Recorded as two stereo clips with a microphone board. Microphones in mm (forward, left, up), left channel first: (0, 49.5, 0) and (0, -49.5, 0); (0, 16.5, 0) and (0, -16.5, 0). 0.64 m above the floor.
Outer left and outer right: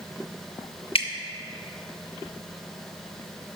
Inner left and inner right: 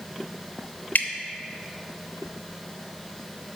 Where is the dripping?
70° left (ahead or behind), 0.7 m.